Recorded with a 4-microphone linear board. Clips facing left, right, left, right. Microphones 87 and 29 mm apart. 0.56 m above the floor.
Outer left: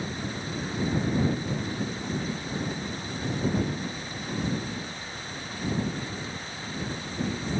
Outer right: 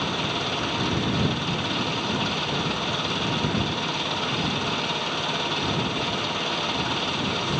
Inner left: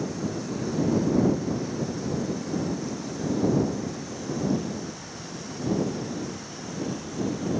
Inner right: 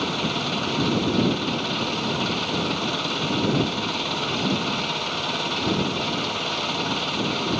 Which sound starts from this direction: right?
An engine running, at 0.0 s.